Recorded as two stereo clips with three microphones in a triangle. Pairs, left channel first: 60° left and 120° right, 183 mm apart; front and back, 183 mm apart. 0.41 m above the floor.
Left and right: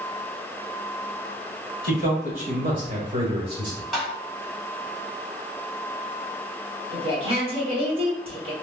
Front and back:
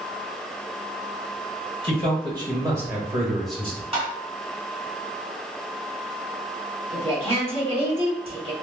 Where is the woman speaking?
150° right, 1.5 m.